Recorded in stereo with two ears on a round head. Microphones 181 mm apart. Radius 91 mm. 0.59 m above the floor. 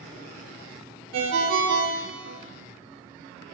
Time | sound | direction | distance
1.1 | a ringtone | 65° right (ahead or behind) | 0.9 m